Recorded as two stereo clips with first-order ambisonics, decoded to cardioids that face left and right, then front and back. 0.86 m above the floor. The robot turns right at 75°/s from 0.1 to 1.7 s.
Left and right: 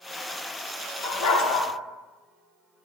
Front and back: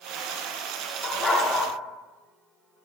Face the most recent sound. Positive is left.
turn(degrees=105)